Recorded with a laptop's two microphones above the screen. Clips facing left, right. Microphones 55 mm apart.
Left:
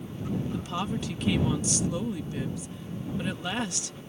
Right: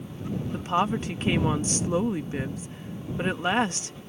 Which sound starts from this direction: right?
A woman speaking, at 0.5 s.